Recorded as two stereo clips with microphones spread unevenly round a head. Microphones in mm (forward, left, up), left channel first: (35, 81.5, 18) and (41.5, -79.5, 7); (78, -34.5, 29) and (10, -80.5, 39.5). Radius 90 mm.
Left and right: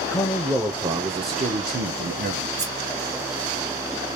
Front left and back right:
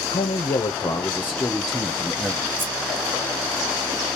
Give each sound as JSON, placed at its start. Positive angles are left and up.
{"t": 0.1, "sound": "a man speaking", "azimuth_deg": 15, "distance_m": 0.8}
{"t": 2.6, "sound": "scissors", "azimuth_deg": -95, "distance_m": 2.0}